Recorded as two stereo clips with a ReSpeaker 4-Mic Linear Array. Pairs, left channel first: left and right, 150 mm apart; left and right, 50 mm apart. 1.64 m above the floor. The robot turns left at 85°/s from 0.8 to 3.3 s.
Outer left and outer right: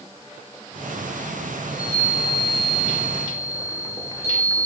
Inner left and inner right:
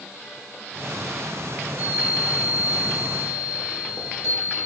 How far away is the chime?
About 4.5 m.